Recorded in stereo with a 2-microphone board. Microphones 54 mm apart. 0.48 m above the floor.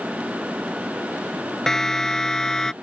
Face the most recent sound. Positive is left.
turn(degrees=10)  # may be behind; listen again after turning